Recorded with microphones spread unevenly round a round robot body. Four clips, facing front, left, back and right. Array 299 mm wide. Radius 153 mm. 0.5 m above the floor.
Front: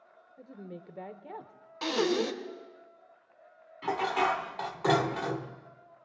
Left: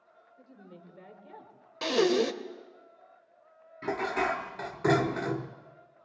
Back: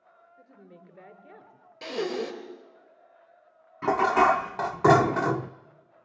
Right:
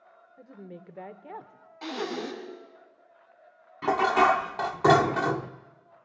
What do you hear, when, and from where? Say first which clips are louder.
0.4 s a woman speaking: right 7 dB, front 7 dB; 50° right, 1.9 m
1.8 s breathing: left 8 dB, front 2 dB; 100° left, 2 m
3.8 s dishes clattering: right 8 dB, back 8 dB; 160° right, 0.7 m